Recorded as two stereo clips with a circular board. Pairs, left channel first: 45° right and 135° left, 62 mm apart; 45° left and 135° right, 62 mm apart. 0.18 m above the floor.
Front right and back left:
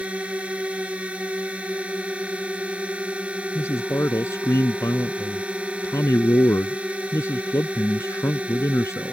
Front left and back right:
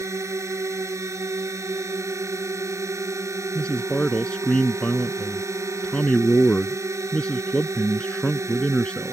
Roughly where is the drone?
Behind.